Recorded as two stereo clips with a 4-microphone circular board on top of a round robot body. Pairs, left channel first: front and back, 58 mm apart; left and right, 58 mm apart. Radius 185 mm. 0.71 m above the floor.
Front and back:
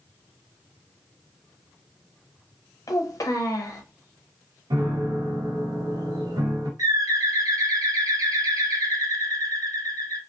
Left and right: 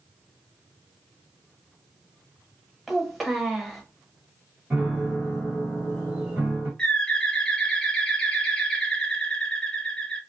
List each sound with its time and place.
2.9 s a child speaking: straight ahead, 1.1 m
4.7 s a piano: 165° right, 0.9 m
6.8 s a bird: 165° left, 0.9 m